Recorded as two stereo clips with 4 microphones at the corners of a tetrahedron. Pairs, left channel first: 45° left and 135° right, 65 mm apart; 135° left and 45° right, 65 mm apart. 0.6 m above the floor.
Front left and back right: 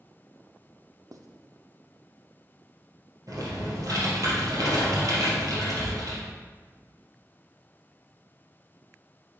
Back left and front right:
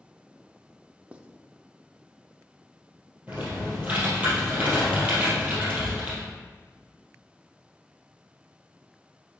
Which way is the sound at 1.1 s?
115° right.